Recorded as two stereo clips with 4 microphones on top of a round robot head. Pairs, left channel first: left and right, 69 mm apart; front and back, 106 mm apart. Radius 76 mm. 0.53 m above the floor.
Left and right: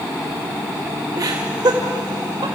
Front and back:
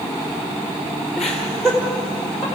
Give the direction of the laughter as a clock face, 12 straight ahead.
3 o'clock.